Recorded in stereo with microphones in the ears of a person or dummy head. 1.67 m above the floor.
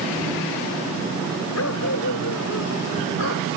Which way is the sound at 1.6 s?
75° left (ahead or behind).